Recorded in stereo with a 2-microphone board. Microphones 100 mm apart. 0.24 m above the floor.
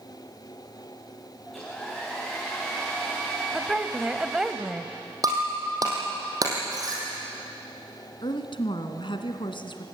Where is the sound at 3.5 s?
10° right (ahead or behind), 1.0 m.